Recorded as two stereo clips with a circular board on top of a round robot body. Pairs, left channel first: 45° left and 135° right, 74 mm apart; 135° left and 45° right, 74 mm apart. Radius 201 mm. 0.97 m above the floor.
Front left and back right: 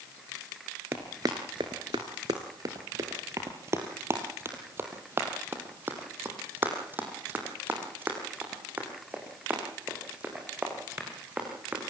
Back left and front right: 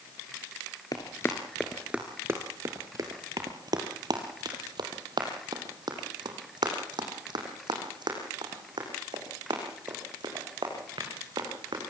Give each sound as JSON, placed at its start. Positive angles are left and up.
{"t": 0.9, "sound": "running footsteps", "azimuth_deg": 170, "distance_m": 1.1}